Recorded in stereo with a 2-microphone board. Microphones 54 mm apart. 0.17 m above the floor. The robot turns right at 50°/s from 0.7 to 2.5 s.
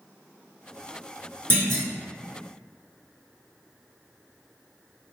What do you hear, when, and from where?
1.5 s a clunk: 45° right (ahead or behind), 1.9 m; by 1.8 s 50° right (ahead or behind), 1.9 m